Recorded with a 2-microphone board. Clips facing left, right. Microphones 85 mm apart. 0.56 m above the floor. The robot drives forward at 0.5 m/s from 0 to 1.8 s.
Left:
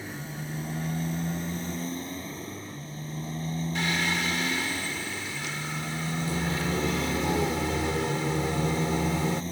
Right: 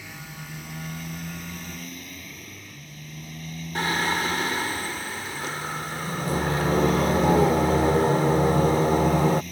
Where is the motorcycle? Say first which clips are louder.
Left 3 dB; 40° left (ahead or behind); by 9.5 s 30° left (ahead or behind).